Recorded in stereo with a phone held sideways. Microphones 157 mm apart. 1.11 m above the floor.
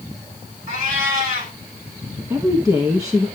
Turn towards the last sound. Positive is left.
turn(degrees=-20)  # may be behind; listen again after turning